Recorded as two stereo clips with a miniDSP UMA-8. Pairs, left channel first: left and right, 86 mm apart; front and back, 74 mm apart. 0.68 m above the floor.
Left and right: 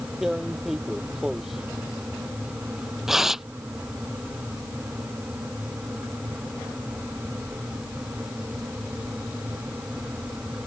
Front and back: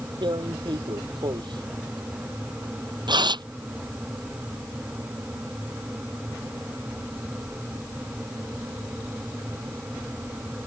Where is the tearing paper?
175° right.